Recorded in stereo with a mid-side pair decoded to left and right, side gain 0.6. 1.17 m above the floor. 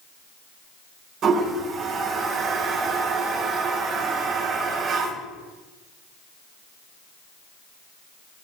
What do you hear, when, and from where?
1.2 s a toilet flushing: 55° right, 5 m